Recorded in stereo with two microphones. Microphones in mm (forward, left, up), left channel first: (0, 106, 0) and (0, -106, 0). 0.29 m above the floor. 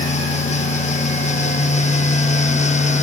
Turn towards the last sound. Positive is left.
No sound to turn to.